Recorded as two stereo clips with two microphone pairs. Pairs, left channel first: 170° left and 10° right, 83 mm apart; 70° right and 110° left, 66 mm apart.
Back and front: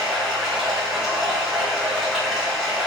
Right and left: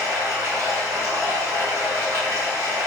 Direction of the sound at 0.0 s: 70° left.